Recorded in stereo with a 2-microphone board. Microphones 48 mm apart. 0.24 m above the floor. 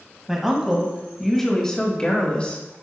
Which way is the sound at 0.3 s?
10° right (ahead or behind).